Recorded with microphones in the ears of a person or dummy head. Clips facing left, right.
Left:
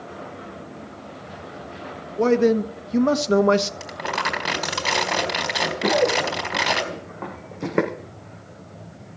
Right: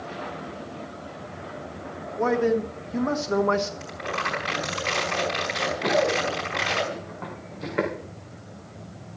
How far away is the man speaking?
About 1.3 m.